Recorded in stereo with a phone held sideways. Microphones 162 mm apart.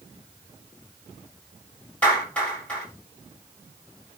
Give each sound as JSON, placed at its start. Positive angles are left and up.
{"t": 2.0, "sound": "a clap", "side_deg": 10, "distance_m": 7.0}